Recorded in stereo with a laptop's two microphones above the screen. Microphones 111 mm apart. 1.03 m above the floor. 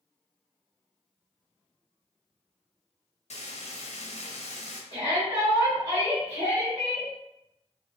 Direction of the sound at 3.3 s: 80° left.